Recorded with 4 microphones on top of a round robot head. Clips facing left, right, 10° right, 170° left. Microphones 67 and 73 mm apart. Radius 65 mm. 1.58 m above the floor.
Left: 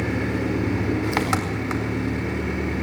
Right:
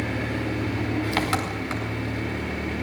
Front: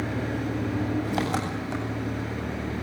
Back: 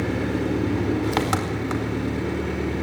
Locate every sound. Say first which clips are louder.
0.0 s an engine running: left 3 dB, back 5 dB; 160° left, 4.5 m